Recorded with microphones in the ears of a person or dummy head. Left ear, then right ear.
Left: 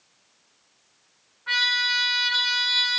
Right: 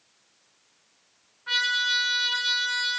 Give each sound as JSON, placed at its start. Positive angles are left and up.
{"t": 1.5, "sound": "a trumpet", "side_deg": -5, "distance_m": 3.5}